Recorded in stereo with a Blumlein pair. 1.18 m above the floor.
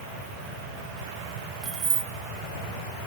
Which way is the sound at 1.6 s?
25° right.